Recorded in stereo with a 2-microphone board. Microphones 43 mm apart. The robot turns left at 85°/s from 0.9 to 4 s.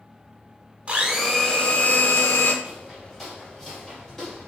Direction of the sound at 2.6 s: 20° right (ahead or behind).